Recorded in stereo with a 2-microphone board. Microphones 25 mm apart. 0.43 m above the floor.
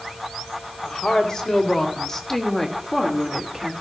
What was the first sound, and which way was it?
A woman speaking, 30° left (ahead or behind).